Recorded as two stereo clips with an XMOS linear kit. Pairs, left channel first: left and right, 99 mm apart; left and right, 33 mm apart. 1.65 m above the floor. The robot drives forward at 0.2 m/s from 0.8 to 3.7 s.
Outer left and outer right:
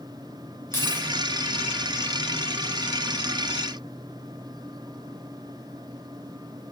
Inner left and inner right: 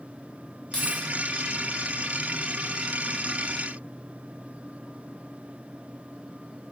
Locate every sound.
0.7 s keys jangling: 25° left (ahead or behind), 0.6 m